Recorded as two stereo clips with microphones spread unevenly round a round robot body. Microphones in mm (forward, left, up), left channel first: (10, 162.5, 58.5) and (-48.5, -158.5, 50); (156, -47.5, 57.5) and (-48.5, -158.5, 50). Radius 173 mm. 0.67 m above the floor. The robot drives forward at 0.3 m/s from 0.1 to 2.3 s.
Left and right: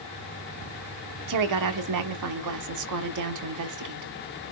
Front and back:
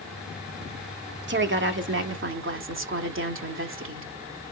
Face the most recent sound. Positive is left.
turn(degrees=-125)